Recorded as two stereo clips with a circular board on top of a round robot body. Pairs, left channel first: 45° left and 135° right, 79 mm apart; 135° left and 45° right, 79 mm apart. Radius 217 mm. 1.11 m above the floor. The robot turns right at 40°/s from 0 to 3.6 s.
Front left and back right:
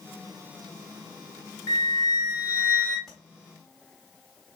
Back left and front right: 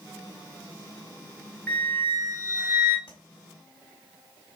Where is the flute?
55° left, 1.2 m; by 3.0 s 110° left, 1.2 m.